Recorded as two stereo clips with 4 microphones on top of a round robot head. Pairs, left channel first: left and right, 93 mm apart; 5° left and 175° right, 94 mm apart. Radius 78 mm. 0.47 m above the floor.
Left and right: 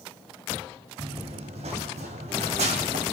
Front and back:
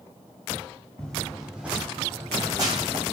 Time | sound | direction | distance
1.0 | running footsteps | 75° right | 1.4 m